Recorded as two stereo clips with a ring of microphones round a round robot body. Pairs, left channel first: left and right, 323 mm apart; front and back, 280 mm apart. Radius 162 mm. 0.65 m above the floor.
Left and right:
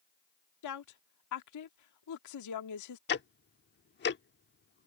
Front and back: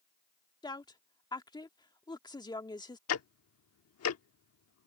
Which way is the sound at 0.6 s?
75° left.